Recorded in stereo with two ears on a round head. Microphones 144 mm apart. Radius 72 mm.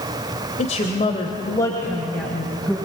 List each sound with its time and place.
0.6 s a woman speaking: 45° left (ahead or behind), 2 m; by 2.8 s centre (ahead or behind), 3.5 m